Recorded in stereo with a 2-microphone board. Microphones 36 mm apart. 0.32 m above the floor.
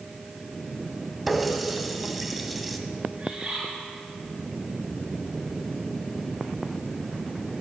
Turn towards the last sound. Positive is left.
turn(degrees=-30)  # may be behind; listen again after turning